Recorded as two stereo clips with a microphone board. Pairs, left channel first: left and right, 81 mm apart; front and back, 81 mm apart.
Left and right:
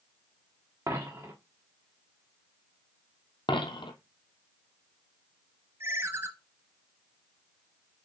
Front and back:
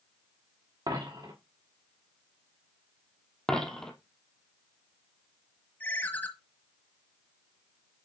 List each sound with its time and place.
0.9 s a dropped coin: 145° right, 3 m
3.5 s a dropped coin: 85° left, 1.2 m
5.8 s a ringtone: 55° right, 0.9 m